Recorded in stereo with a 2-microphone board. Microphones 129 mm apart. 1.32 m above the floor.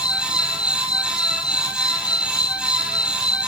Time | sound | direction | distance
0.0 | an insect | 30° left (ahead or behind) | ?